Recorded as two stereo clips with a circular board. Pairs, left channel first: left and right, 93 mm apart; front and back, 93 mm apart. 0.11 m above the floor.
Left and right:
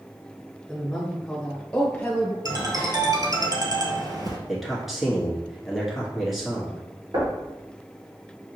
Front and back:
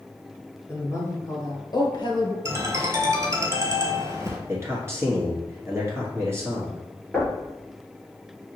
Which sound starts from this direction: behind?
A man speaking, at 4.5 s.